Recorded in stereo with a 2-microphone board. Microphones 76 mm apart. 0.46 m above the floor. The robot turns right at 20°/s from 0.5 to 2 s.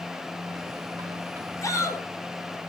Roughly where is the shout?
Left.